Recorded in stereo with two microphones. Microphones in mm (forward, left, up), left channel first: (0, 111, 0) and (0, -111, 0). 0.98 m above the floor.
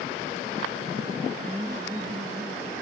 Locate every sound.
1.4 s laughter: 5° right (ahead or behind), 1.1 m; by 2.7 s 30° right (ahead or behind), 2.0 m